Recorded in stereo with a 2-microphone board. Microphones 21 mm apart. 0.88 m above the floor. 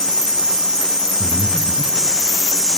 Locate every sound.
1.2 s breathing: 35° right (ahead or behind), 5 m